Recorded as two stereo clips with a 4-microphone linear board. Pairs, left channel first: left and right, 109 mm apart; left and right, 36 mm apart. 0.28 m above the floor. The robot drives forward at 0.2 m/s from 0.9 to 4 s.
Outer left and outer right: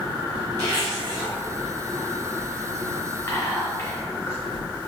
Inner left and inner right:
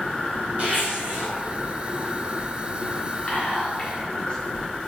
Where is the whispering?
25° left (ahead or behind), 1.0 m.